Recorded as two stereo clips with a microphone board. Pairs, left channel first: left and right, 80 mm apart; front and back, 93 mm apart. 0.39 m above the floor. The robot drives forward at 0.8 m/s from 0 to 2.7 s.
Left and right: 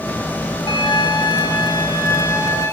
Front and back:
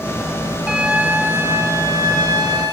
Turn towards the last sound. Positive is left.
turn(degrees=140)